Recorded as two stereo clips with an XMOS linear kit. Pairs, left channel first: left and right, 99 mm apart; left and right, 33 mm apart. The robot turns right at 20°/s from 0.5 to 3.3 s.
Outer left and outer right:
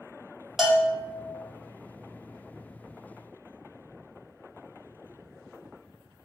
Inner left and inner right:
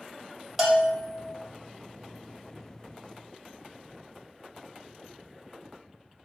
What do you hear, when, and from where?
0.6 s a bell: 5° right (ahead or behind), 1.0 m; by 1.1 s 15° right (ahead or behind), 1.0 m